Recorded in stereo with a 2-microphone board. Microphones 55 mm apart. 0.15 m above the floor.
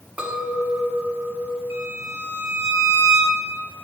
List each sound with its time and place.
0.2 s a clink: 25° right (ahead or behind), 0.8 m
1.7 s a violin: 70° right (ahead or behind), 1.1 m